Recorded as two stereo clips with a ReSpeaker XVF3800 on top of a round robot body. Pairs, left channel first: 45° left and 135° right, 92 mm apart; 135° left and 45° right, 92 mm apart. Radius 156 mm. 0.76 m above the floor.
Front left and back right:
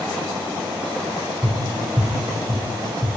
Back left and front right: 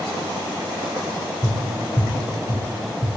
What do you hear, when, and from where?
1.4 s tapping: 165° left, 1.8 m